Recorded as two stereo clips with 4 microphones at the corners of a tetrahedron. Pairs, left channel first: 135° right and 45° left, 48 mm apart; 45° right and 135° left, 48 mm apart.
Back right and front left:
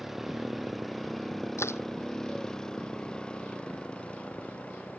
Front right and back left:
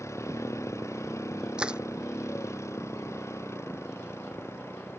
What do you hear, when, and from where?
0.0 s a motorcycle: 40° right; by 5.0 s 75° right
1.6 s crushing: 155° right